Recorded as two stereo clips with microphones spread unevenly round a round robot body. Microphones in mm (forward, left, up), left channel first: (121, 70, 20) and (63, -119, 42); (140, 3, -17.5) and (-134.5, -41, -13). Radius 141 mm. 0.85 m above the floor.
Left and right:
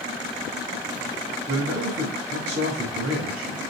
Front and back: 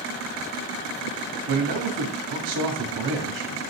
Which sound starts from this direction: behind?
A man speaking, at 1.5 s.